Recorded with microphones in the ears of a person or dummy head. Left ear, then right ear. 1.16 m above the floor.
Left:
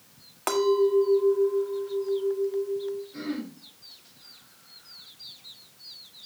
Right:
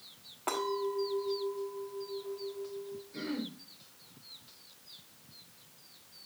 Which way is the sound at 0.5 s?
60° left (ahead or behind).